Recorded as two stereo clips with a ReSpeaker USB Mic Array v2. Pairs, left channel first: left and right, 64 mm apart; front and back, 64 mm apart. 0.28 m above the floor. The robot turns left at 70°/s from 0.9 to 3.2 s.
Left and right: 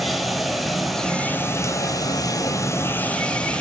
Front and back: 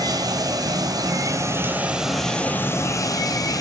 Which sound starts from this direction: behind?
Running water, at 0.0 s.